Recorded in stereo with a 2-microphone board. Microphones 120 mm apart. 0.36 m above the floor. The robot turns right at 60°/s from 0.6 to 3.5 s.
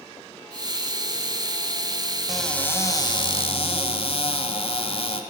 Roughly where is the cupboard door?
Ahead.